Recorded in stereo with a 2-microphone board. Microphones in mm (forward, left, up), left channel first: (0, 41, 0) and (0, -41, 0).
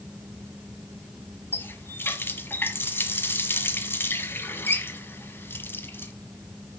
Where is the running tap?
25° left (ahead or behind), 1.3 m.